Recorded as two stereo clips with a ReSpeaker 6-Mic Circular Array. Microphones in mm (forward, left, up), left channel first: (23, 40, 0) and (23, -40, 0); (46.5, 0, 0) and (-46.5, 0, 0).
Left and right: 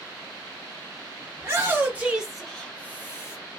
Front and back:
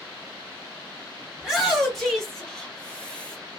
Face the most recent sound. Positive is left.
turn(degrees=70)